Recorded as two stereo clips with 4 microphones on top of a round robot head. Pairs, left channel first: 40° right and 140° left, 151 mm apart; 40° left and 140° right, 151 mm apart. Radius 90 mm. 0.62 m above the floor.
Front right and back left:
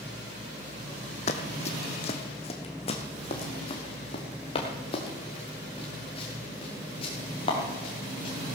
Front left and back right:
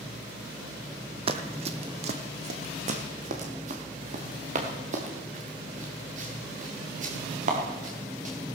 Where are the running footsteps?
90° right, 1.1 m; by 8.3 s 100° right, 4.5 m.